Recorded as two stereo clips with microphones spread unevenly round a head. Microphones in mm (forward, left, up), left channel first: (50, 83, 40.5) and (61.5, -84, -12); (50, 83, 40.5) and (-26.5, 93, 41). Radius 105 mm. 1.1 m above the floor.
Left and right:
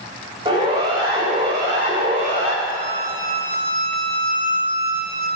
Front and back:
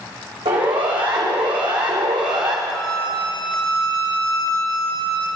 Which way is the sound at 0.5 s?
155° right.